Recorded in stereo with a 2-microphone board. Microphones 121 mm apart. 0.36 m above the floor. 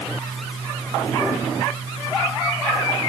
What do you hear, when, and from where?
Only background noise.